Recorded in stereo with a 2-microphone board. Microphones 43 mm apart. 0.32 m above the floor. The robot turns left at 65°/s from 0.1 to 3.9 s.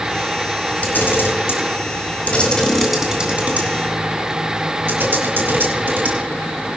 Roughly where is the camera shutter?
Left.